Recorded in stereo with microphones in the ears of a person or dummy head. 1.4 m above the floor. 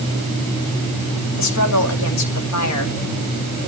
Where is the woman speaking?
85° left, 2.5 m.